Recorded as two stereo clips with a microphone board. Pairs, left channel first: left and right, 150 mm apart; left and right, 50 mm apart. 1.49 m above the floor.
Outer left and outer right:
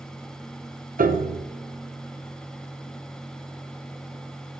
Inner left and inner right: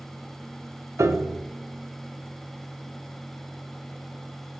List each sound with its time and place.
1.0 s a piano: 70° right (ahead or behind), 0.6 m